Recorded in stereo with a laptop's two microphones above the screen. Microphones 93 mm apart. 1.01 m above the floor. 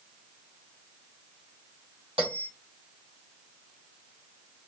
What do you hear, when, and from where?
2.2 s a bell: 85° right, 2 m